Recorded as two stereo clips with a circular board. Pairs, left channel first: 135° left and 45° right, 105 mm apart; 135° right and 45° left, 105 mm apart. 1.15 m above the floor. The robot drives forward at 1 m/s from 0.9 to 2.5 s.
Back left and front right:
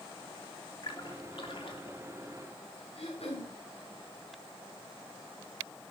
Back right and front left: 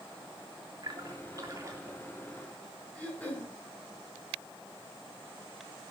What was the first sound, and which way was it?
A splash, 90° left.